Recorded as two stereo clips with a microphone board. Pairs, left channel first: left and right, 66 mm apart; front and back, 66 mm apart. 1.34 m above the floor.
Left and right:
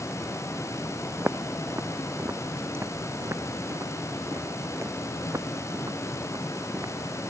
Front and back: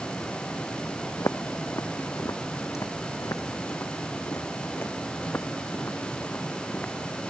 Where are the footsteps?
30° right; by 7.3 s 55° right.